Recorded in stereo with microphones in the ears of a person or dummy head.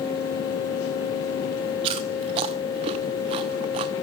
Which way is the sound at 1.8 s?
20° right (ahead or behind).